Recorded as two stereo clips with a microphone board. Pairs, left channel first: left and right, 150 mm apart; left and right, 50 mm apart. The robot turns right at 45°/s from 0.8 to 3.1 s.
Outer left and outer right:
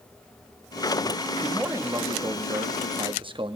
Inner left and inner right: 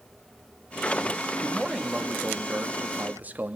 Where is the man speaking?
160° right, 0.7 m; by 3.6 s 85° right, 0.7 m.